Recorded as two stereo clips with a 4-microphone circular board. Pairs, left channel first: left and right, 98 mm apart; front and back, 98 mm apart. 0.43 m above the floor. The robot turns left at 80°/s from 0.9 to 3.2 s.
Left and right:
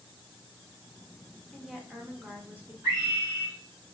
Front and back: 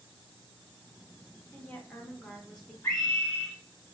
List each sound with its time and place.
1.5 s a woman speaking: 10° left, 0.7 m; by 2.7 s 90° right, 0.7 m
2.8 s a scream: 50° right, 1.7 m; by 3.5 s 80° right, 1.7 m